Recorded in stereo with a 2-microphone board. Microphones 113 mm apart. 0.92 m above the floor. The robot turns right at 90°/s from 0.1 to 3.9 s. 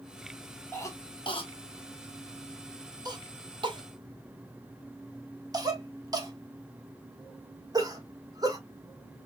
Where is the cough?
20° left (ahead or behind), 1.3 m; by 8.6 s 35° right (ahead or behind), 1.3 m.